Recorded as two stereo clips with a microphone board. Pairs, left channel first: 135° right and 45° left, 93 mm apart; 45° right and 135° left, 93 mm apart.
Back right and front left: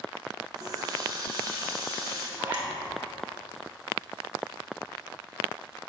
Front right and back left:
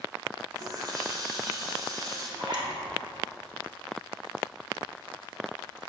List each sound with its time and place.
0.6 s a running tap: 90° left, 2 m
2.4 s a zipper: 115° left, 2.5 m